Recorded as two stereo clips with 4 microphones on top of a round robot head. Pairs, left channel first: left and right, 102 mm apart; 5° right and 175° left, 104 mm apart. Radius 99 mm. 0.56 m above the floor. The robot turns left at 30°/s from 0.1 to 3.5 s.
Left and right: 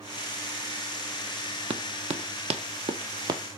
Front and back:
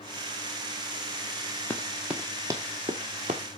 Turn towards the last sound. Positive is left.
turn(degrees=-145)